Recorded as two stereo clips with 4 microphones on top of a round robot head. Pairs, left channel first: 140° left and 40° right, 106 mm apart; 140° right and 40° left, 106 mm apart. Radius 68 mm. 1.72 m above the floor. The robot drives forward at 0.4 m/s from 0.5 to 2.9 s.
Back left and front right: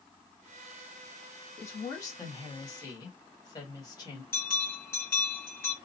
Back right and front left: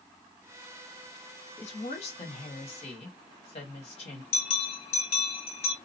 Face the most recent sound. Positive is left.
turn(degrees=-155)